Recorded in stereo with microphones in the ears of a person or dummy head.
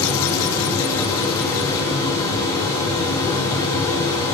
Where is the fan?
10° left (ahead or behind), 1.3 m.